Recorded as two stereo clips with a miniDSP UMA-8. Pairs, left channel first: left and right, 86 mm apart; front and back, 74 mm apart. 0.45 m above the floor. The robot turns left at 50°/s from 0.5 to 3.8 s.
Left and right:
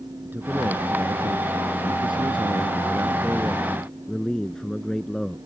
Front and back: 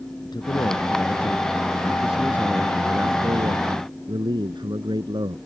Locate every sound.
0.2 s a man speaking: 20° right; by 5.4 s 175° left